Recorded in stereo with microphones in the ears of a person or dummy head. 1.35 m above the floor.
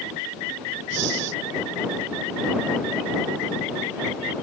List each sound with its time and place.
0.9 s breathing: 60° right (ahead or behind)